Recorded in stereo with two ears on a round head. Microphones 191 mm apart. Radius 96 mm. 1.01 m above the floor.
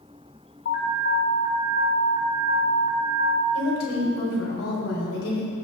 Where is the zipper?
I don't hear a zipper.